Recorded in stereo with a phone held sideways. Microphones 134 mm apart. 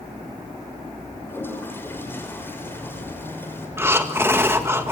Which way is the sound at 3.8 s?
20° right (ahead or behind).